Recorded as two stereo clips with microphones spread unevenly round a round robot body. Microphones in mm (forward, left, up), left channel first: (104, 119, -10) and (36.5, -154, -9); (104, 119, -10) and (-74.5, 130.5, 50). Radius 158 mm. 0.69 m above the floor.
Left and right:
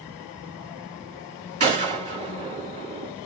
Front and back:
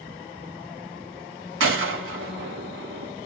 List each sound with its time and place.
1.6 s a gunshot: 170° right, 2 m